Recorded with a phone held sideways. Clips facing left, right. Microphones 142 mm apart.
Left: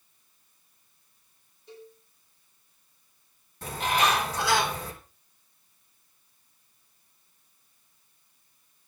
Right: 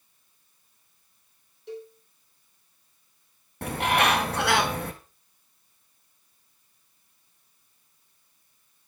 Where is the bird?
60° right (ahead or behind), 1.7 m.